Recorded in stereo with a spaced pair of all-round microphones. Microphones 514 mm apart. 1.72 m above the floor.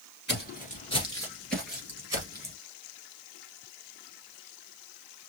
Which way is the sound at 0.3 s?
20° left (ahead or behind).